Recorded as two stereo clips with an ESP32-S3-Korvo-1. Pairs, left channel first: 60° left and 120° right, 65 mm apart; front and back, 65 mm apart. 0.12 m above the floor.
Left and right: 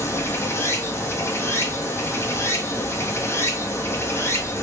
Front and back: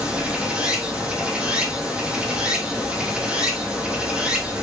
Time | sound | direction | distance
0.0 | running water | 110° left | 1.5 m